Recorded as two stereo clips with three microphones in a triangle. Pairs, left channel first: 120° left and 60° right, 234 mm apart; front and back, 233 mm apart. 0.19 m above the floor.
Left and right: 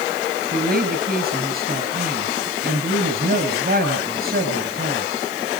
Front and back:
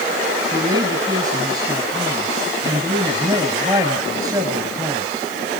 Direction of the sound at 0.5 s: 105° right.